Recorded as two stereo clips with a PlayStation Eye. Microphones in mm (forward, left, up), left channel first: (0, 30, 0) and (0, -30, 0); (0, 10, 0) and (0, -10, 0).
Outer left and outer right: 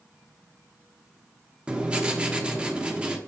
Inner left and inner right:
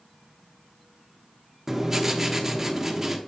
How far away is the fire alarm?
I don't hear a fire alarm.